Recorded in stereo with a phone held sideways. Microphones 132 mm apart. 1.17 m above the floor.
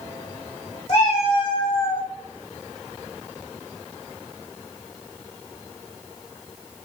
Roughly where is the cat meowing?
Left.